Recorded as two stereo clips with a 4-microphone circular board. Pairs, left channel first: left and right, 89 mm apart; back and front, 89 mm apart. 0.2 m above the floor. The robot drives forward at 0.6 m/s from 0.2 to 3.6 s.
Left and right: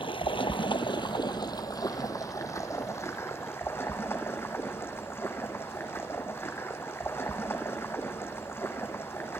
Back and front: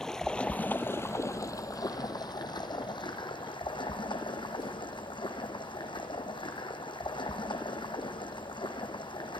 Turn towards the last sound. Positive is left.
turn(degrees=155)